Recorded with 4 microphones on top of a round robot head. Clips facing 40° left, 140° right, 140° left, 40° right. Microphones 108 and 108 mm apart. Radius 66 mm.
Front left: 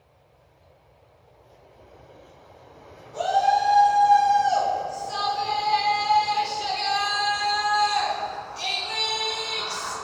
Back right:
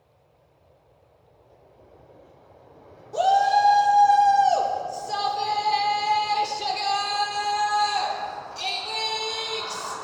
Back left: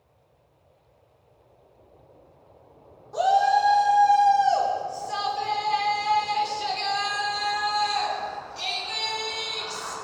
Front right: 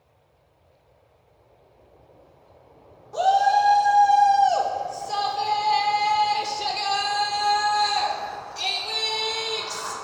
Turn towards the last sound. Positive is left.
turn(degrees=-70)